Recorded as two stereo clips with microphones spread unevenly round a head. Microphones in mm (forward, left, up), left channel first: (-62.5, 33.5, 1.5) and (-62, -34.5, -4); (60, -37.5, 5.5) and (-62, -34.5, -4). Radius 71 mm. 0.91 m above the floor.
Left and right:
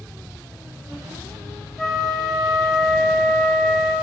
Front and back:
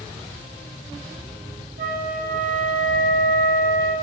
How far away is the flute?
About 2.5 m.